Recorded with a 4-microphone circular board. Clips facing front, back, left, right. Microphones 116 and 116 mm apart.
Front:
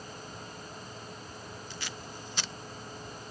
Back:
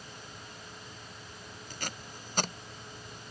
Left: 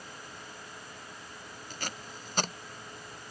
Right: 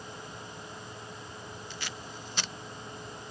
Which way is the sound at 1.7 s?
135° left.